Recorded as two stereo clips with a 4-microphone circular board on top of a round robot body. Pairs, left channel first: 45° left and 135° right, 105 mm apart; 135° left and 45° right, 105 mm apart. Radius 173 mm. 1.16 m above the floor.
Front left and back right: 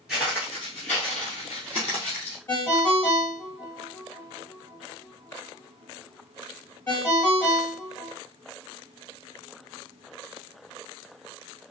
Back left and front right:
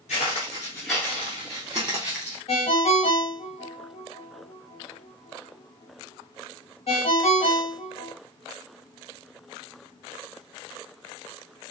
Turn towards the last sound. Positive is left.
turn(degrees=110)